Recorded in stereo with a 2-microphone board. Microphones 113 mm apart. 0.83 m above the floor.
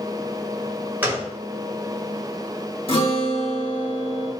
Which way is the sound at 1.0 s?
15° right (ahead or behind).